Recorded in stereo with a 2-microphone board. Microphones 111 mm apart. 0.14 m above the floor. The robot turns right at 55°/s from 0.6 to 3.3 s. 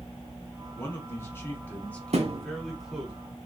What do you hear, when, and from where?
0.7 s a man speaking: 20° left (ahead or behind), 1.2 m; by 3.1 s 10° right (ahead or behind), 1.2 m
2.1 s a thud: 70° right (ahead or behind), 0.7 m; by 2.5 s 50° right (ahead or behind), 0.7 m